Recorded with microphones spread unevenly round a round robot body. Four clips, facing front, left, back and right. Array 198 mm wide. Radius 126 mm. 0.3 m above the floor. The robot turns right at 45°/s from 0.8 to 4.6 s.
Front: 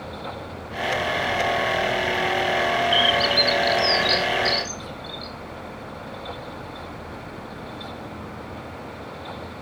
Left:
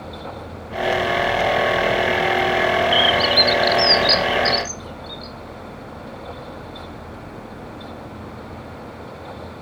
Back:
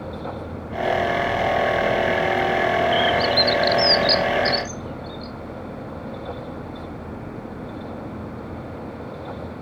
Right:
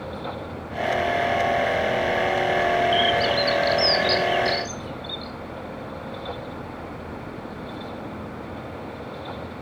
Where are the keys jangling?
I don't hear keys jangling.